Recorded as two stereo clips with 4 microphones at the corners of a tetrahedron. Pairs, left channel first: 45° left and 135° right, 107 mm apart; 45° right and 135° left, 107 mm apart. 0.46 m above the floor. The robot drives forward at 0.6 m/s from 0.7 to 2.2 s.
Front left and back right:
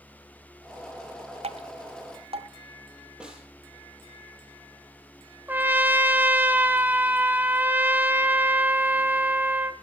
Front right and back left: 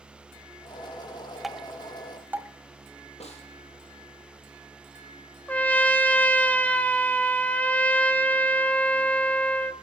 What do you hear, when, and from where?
1.4 s dripping: 135° right, 0.8 m; by 2.5 s 155° right, 1.2 m
3.2 s a snare drum: 50° right, 6 m
5.5 s a trumpet: 95° right, 1.2 m